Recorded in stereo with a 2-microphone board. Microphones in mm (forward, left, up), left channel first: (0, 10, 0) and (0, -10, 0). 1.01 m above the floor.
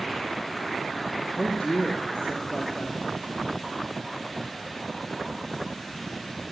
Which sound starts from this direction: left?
A woman speaking, at 1.4 s.